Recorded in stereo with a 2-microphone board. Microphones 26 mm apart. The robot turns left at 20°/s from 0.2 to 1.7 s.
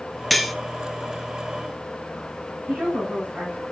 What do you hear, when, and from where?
0.3 s cutlery clinking: 5° left (ahead or behind), 1.1 m; by 0.5 s centre (ahead or behind), 1.1 m
2.7 s a woman speaking: 80° right, 9 m